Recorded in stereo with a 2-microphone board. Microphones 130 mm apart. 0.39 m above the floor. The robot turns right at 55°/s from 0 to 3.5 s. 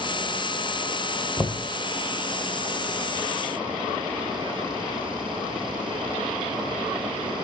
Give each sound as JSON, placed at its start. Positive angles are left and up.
{"t": 1.4, "sound": "knocking", "side_deg": 10, "distance_m": 0.8}